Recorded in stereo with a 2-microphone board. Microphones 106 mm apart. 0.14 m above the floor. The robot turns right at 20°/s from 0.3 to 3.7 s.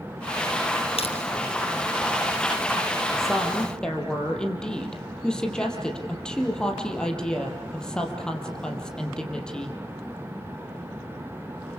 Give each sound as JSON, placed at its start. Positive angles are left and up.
{"t": 1.0, "sound": "crushing", "side_deg": 70, "distance_m": 2.5}
{"t": 3.2, "sound": "a woman speaking", "side_deg": 0, "distance_m": 4.0}